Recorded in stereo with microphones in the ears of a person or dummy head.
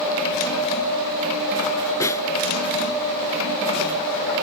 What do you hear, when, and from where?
2.0 s a snare drum: 15° left (ahead or behind)